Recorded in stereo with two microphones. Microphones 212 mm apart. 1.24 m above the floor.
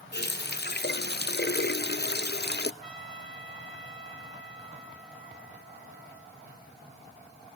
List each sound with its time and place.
0.1 s a running tap: 55° left (ahead or behind), 0.6 m
2.8 s a trumpet: 80° left, 6.5 m